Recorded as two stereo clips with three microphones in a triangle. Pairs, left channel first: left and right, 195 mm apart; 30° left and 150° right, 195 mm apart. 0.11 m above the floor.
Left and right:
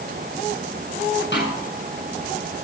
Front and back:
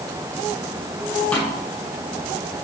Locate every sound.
1.3 s a snare drum: 115° left, 8 m